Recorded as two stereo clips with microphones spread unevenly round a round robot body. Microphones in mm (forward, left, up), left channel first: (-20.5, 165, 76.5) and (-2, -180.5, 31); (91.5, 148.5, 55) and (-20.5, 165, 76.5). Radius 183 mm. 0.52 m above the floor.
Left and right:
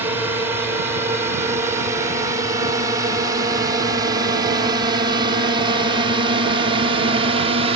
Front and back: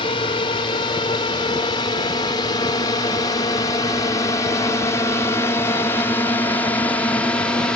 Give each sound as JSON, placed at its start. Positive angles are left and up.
{"t": 0.0, "sound": "a drone", "azimuth_deg": -10}